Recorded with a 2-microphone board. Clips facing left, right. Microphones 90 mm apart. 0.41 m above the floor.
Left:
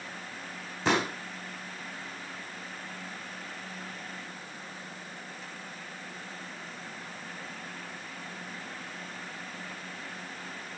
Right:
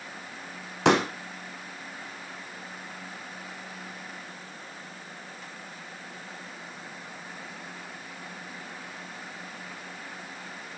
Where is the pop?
80° right, 3 m.